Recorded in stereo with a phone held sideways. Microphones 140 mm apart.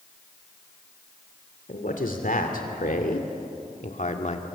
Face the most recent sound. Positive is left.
turn(degrees=55)  # may be behind; listen again after turning